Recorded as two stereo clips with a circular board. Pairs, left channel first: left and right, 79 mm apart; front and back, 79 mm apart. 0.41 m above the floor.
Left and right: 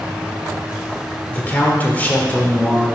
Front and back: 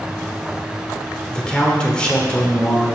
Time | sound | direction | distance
1.3 | a man speaking | 60° left | 1.2 m